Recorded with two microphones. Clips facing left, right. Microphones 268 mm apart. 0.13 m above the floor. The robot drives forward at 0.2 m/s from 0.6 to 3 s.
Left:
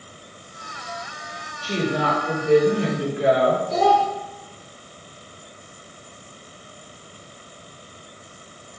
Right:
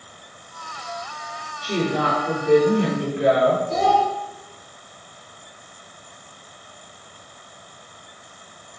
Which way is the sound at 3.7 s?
40° right (ahead or behind).